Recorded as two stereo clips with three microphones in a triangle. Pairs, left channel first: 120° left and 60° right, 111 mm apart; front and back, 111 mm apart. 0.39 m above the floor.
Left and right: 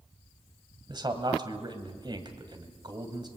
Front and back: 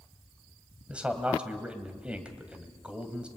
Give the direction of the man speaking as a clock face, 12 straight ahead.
3 o'clock.